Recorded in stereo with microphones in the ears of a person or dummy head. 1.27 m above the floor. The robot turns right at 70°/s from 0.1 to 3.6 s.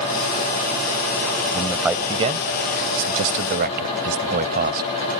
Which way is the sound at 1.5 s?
15° left (ahead or behind).